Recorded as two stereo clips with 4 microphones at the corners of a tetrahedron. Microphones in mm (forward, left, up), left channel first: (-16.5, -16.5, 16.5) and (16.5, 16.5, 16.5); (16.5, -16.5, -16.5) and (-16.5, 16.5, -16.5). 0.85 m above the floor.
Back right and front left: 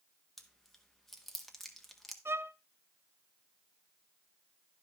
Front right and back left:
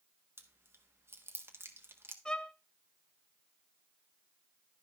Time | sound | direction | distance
0.4 | chewing | 140° left | 1.3 m
2.2 | a violin | 25° left | 0.6 m